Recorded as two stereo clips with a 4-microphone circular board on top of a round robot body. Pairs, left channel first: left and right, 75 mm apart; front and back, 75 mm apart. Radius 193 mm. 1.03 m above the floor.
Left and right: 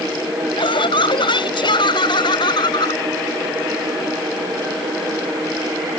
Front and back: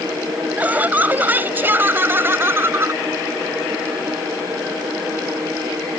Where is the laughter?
110° left; by 3.0 s 120° left.